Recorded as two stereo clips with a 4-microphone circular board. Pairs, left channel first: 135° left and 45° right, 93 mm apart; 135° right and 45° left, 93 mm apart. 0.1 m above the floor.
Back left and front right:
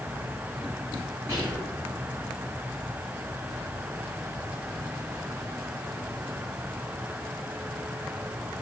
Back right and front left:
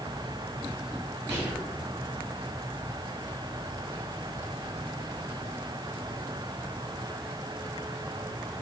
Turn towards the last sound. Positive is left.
turn(degrees=-55)